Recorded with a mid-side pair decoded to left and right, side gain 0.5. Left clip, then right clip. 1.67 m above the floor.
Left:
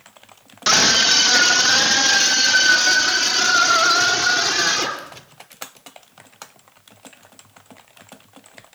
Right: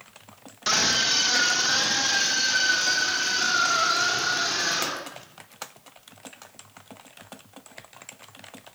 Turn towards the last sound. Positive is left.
turn(degrees=55)